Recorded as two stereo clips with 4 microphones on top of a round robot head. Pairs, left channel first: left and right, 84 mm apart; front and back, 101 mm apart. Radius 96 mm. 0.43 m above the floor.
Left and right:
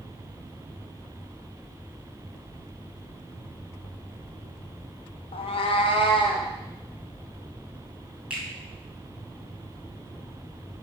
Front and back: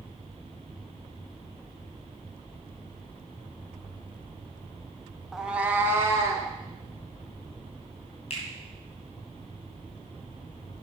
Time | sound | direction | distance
5.3 | a cat meowing | 90° left | 0.8 m
8.3 | a finger snap | 10° right | 2.5 m